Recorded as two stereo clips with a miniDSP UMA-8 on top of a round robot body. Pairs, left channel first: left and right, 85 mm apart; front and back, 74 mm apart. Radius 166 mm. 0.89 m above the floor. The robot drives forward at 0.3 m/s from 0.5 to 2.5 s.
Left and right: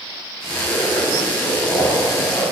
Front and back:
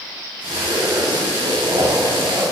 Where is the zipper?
155° left, 2.5 m; by 2.4 s 160° left, 3 m.